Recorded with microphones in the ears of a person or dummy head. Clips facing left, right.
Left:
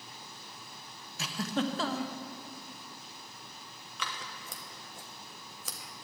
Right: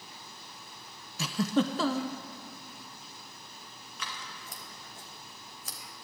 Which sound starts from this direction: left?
Scissors, at 4.0 s.